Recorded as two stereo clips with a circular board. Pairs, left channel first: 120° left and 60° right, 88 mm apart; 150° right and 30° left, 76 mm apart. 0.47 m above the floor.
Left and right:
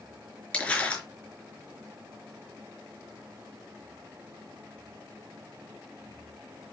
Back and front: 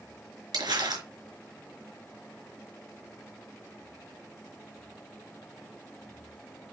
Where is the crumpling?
40° left, 4.5 m.